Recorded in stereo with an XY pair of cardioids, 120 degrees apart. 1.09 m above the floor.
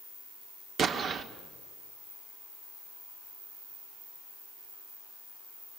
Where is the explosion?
50° right, 1.5 m.